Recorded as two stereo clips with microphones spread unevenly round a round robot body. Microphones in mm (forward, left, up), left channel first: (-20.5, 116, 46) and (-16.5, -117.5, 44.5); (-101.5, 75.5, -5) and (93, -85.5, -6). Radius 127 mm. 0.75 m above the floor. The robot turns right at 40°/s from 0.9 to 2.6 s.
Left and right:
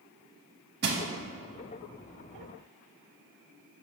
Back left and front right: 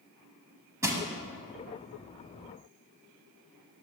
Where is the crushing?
110° right, 0.7 m; by 1.0 s 105° right, 0.7 m.